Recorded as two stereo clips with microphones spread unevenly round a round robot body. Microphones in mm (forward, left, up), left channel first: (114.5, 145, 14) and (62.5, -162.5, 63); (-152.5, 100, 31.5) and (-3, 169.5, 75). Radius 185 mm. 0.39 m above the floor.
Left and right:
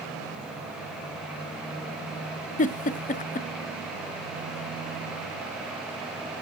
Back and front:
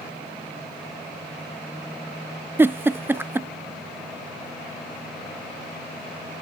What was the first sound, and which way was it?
A giggle, 115° left.